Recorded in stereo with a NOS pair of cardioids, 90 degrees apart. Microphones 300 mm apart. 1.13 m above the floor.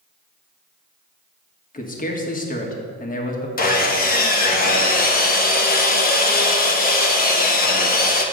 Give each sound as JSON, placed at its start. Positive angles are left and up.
{"t": 1.7, "sound": "a man speaking", "azimuth_deg": 30, "distance_m": 1.6}
{"t": 3.6, "sound": "sawing", "azimuth_deg": 30, "distance_m": 1.1}